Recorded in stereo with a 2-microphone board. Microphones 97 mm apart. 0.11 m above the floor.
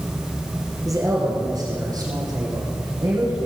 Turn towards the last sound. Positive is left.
turn(degrees=-40)  # may be behind; listen again after turning